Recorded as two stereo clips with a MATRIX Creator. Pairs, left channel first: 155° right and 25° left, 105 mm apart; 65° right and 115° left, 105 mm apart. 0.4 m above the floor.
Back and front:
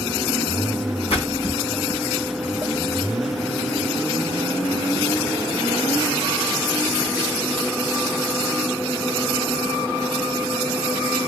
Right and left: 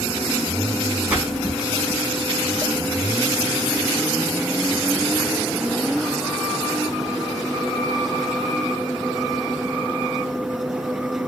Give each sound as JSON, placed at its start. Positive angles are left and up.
{"t": 1.1, "sound": "a splash", "azimuth_deg": -175, "distance_m": 3.5}